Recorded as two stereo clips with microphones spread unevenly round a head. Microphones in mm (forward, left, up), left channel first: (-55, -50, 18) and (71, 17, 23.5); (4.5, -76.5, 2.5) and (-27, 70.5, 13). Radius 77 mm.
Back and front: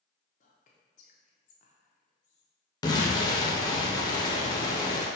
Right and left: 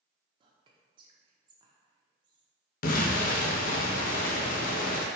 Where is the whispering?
165° left, 0.6 m.